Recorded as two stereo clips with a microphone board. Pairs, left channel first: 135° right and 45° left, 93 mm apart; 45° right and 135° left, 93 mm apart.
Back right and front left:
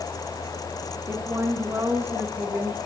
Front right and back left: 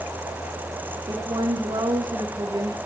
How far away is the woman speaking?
About 1.9 m.